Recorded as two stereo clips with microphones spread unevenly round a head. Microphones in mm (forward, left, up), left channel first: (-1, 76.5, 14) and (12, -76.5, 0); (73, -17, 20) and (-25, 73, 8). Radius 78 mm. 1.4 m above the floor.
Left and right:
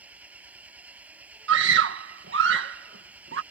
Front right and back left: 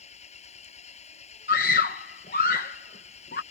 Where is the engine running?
5° right.